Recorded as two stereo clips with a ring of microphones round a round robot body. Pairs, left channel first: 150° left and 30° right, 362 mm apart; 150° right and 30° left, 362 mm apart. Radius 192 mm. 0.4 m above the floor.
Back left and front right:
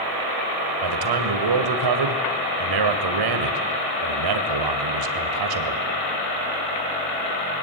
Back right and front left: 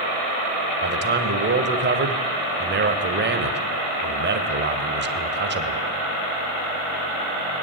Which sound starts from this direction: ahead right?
A man speaking, at 0.8 s.